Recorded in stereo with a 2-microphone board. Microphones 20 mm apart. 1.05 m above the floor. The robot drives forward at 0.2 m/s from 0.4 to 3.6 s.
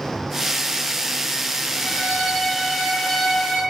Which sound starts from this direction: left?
A violin, at 1.8 s.